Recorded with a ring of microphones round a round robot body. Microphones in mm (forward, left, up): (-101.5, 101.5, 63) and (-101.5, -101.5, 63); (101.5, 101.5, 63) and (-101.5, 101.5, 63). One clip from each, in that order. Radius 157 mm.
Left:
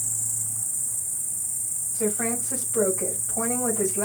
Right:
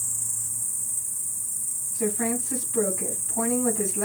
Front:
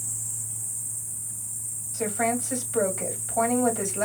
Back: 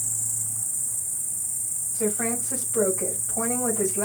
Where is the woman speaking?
Straight ahead, 2.5 m.